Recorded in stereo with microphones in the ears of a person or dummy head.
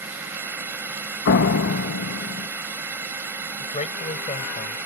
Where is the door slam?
60° left (ahead or behind).